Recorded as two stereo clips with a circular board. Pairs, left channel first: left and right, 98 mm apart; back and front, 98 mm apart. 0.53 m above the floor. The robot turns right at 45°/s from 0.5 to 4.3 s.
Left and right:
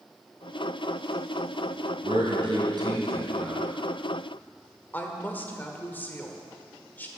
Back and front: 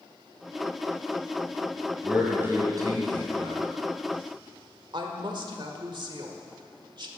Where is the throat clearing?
No throat clearing in this recording.